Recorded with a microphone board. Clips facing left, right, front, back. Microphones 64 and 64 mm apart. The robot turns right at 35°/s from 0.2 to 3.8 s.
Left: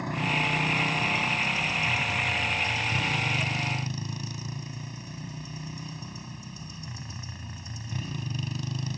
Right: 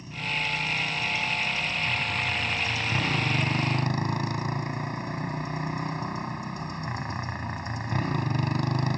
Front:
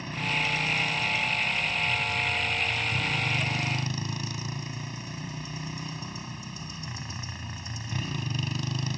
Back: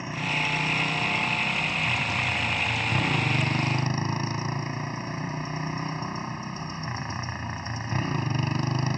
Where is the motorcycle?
105° left; by 9.0 s 125° right.